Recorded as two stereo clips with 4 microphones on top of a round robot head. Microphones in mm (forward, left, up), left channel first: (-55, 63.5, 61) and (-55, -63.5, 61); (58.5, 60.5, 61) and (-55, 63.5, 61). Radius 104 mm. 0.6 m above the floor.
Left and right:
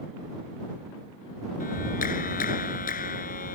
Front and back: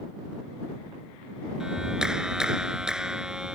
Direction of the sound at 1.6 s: 95° left.